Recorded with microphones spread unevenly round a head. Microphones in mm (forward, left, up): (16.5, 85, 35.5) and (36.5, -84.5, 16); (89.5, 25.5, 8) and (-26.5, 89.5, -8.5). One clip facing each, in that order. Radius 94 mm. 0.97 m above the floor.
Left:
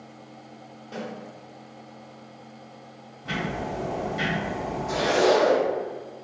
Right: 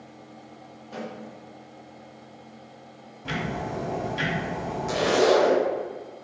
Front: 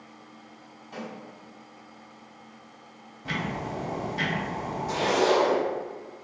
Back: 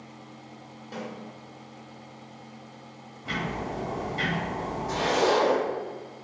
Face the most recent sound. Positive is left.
turn(degrees=-105)